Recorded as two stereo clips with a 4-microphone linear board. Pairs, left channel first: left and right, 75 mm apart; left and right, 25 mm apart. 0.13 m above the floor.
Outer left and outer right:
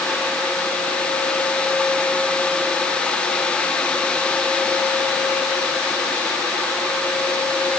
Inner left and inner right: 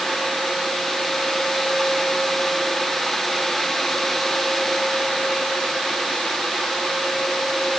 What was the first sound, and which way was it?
Only background noise.